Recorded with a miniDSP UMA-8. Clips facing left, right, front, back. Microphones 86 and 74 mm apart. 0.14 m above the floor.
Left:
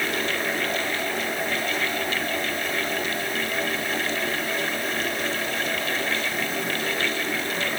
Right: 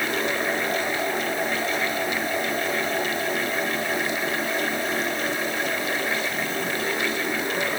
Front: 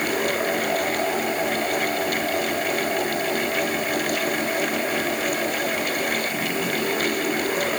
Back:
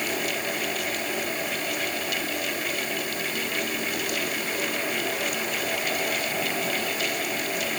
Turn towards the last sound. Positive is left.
No sound to turn to.